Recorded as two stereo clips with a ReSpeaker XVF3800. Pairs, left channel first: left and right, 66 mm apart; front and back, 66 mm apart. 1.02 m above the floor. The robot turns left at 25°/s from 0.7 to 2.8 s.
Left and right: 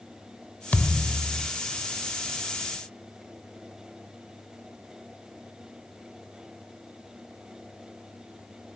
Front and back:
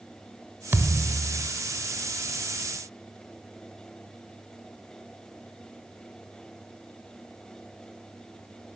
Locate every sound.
0.7 s a thud: 140° left, 1.0 m; by 1.5 s 120° left, 1.0 m